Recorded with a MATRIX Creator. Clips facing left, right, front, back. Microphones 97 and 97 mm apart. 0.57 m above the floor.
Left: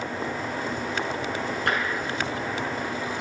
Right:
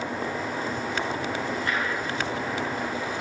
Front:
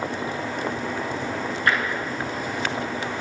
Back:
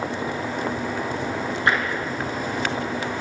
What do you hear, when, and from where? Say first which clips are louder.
1.7 s tapping: left 4 dB, back 1 dB; 115° left, 8.5 m